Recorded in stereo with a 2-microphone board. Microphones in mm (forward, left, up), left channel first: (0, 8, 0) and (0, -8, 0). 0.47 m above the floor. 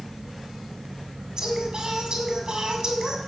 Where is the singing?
50° right (ahead or behind), 2 m.